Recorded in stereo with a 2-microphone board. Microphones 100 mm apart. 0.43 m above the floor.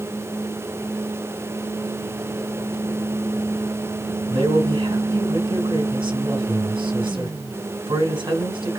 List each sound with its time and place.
4.3 s a man speaking: 55° right (ahead or behind), 2.5 m